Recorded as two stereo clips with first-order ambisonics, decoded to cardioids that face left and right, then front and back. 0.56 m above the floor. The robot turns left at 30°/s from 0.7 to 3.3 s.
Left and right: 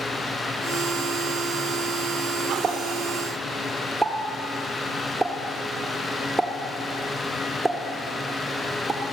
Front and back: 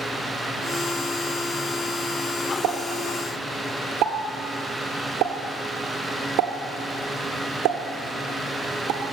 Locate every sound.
2.6 s a pop: 150° right, 0.9 m; by 9.0 s 170° right, 0.9 m